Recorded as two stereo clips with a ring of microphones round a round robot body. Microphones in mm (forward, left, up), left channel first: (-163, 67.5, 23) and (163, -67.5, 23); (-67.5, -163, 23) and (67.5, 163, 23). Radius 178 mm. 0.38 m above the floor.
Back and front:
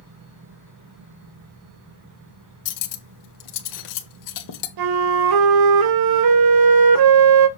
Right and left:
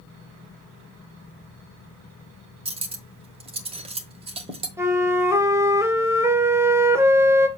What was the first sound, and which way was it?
Cutlery clinking, 140° left.